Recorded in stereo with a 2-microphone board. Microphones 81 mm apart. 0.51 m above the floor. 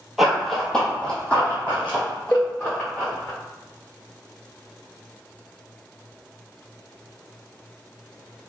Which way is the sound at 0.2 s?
5° right (ahead or behind).